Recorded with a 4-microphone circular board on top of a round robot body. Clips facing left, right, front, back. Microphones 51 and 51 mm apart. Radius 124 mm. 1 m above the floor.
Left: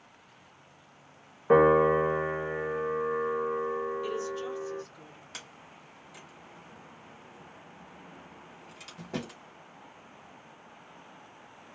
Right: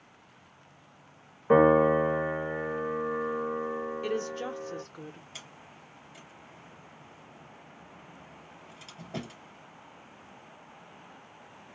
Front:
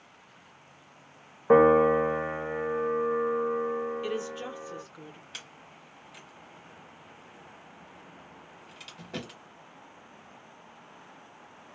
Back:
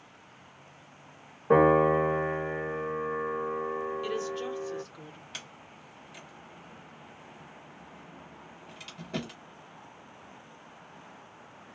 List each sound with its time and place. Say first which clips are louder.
1.5 s a piano: even, front 2 dB; 10° left, 0.9 m
4.0 s a woman speaking: right 1 dB, back 1 dB; 65° right, 0.7 m
5.3 s a sliding door: left 1 dB, back 1 dB; 90° left, 1.3 m